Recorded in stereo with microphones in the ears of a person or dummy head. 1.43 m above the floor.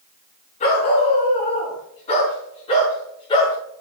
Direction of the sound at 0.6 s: 35° left (ahead or behind).